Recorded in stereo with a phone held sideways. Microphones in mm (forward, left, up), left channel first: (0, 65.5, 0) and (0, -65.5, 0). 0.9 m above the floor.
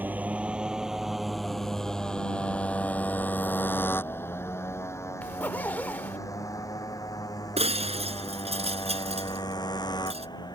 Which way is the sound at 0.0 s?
15° right (ahead or behind).